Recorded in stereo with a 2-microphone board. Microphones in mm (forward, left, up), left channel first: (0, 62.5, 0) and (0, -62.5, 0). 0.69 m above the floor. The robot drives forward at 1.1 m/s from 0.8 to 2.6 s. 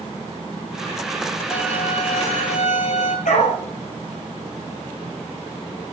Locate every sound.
1.5 s a violin: 55° left (ahead or behind), 10 m; by 3.1 s 65° left (ahead or behind), 9 m
3.2 s a dog barking: 80° left, 4.5 m